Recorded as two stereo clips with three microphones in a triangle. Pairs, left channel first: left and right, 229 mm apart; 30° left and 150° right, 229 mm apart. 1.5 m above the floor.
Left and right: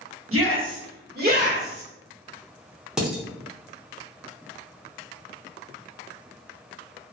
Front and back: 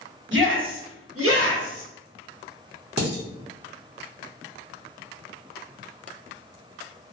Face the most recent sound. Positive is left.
turn(degrees=-175)